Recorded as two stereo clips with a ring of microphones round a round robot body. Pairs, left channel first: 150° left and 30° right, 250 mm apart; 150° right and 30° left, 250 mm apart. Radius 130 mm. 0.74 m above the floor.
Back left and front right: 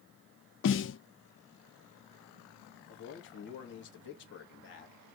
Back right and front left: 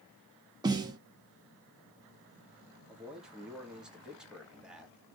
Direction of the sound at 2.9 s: 115° left.